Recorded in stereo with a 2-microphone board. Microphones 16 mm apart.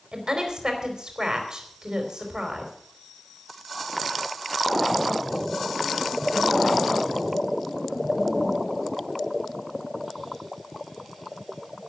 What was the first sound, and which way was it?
A woman speaking, 55° right (ahead or behind).